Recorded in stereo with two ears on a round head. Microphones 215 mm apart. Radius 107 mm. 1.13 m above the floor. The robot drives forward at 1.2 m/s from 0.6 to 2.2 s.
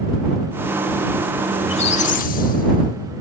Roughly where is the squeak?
Left.